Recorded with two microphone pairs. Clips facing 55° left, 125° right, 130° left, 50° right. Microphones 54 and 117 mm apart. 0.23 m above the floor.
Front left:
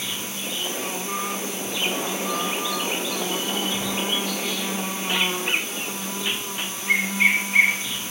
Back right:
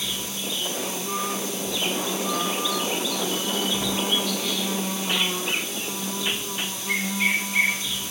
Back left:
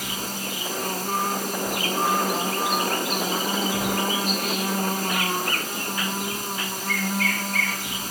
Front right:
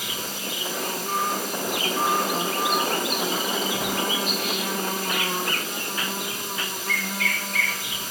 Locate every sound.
0.0 s an insect: 105° left, 1.5 m